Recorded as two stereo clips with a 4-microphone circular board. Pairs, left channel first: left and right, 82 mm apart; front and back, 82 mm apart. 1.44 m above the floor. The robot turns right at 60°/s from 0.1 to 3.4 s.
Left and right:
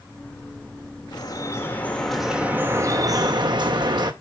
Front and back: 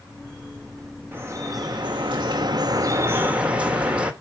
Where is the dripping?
115° left, 2 m; by 4.1 s 105° right, 2 m.